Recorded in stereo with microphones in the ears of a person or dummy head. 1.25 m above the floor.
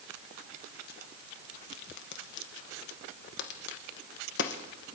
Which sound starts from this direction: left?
A crack, at 1.7 s.